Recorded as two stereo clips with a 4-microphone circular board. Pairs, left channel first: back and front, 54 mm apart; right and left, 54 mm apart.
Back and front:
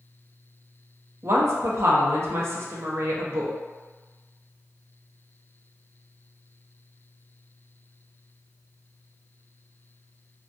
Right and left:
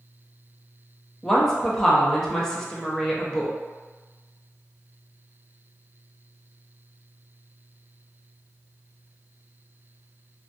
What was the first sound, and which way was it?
A woman speaking, 15° right.